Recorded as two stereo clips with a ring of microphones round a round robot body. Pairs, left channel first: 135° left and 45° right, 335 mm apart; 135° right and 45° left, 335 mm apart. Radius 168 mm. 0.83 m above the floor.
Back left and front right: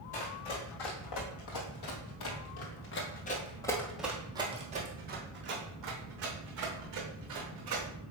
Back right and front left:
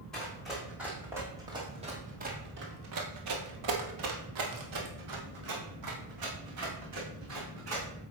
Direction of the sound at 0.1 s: 135° left.